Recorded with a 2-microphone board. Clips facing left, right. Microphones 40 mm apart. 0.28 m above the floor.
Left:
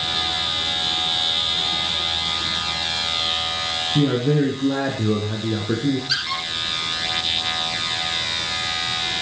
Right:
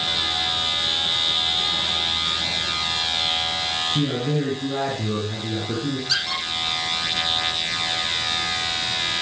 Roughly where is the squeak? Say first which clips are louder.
Even; centre.